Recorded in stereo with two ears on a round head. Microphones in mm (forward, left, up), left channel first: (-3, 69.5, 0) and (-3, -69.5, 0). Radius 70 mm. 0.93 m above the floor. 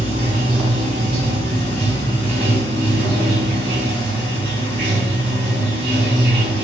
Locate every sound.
0.0 s running water: 70° right (ahead or behind), 1.2 m